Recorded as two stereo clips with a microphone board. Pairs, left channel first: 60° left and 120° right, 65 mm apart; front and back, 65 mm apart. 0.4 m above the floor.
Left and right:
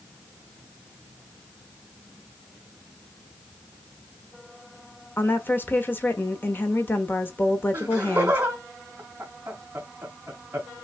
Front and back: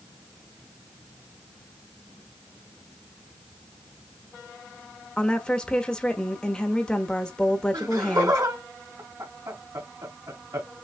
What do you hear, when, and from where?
5.2 s a woman speaking: 65° left, 1.0 m
7.7 s laughter: 175° left, 2 m